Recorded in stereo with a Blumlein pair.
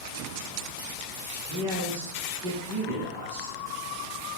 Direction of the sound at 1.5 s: 35° right.